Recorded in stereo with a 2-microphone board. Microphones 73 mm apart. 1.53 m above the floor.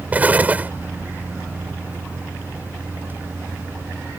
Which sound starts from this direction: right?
An explosion, at 0.1 s.